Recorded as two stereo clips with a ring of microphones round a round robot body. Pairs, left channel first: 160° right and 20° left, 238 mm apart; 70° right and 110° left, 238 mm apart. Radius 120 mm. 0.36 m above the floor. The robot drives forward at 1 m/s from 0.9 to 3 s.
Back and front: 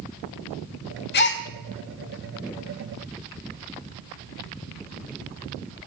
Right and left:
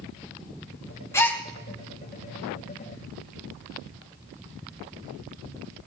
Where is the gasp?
140° right, 1.2 m; by 1.4 s 150° right, 1.4 m.